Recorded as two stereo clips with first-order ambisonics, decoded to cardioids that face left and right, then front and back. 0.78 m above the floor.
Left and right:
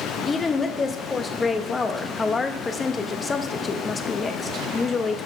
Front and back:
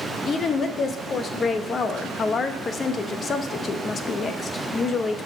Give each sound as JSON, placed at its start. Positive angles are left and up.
{"t": 0.2, "sound": "a woman speaking", "azimuth_deg": 35, "distance_m": 0.7}